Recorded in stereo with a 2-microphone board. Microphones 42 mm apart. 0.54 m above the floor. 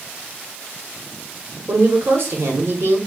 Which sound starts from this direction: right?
A woman speaking, at 1.7 s.